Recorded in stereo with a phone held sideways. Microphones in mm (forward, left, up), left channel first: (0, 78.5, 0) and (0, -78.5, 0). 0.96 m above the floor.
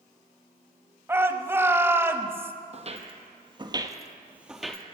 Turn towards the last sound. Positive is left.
turn(degrees=5)  # may be behind; listen again after turning